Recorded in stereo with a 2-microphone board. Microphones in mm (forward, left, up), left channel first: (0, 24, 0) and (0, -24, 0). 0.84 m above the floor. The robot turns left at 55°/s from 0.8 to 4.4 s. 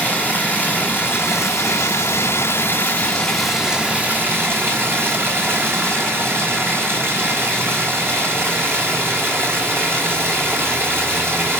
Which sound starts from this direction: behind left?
Running water, at 0.0 s.